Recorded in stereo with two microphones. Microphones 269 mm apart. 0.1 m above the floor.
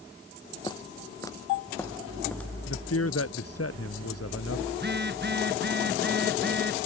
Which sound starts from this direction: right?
A phone buzzing, at 4.7 s.